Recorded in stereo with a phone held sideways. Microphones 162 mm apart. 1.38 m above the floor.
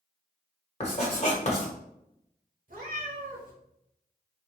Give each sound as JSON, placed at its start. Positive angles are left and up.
{"t": 0.8, "sound": "writing", "side_deg": 40, "distance_m": 1.2}
{"t": 2.7, "sound": "a cat meowing", "side_deg": -60, "distance_m": 1.1}